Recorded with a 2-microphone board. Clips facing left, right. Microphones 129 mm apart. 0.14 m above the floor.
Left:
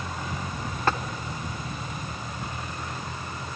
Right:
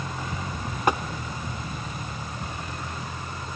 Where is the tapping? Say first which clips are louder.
Right 2 dB; 15° right (ahead or behind), 0.8 m.